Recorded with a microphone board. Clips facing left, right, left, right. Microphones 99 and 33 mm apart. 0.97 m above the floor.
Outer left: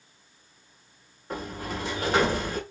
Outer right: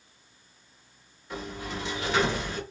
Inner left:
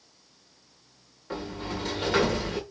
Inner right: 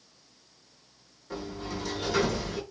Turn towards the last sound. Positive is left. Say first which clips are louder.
# outer left 2 dB, inner left 2 dB
turn(degrees=45)  # may be behind; listen again after turning